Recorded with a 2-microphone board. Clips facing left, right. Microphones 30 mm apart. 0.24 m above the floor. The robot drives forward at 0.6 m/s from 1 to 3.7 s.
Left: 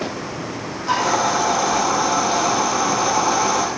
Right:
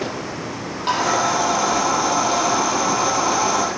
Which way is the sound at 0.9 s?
55° right (ahead or behind).